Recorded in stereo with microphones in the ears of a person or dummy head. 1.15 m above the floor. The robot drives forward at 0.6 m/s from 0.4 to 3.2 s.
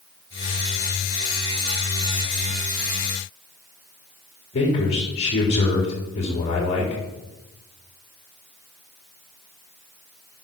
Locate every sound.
4.5 s a man speaking: 35° left (ahead or behind), 3 m